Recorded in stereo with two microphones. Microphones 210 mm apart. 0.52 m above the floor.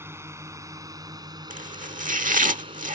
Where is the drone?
10° right (ahead or behind); by 3.0 s 25° right (ahead or behind).